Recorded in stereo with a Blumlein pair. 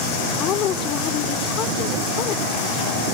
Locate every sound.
0.4 s a woman speaking: 30° left